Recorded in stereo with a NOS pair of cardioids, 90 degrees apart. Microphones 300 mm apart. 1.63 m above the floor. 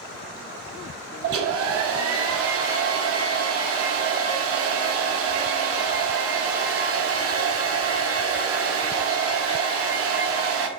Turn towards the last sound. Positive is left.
turn(degrees=-50)